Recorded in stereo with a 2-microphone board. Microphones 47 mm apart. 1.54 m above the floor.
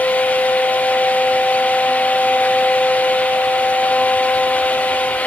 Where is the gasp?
No gasp in this recording.